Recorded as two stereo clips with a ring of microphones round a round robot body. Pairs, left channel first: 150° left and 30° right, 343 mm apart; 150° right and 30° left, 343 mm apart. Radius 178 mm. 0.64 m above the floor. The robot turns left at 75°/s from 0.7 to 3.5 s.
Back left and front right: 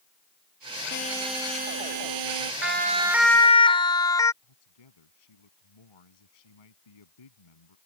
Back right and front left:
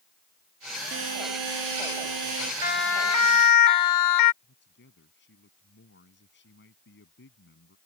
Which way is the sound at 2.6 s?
80° right.